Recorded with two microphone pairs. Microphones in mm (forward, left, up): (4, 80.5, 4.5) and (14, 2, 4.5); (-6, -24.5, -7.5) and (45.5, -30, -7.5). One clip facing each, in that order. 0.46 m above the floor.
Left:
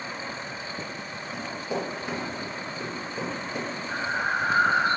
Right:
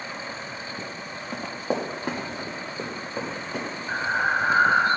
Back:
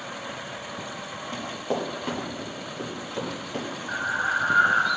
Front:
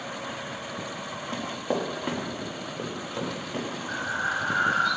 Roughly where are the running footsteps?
Right.